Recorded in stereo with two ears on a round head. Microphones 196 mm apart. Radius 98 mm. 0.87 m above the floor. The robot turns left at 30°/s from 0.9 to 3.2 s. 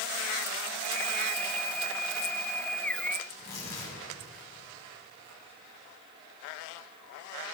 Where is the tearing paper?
60° left (ahead or behind), 5.5 m.